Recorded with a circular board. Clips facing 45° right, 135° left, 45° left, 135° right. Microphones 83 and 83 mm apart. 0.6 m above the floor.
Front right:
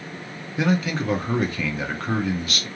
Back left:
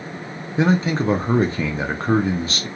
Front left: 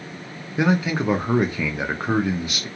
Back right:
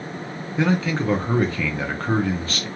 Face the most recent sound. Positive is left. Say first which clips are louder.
# back left 4 dB, front left 1 dB
turn(degrees=110)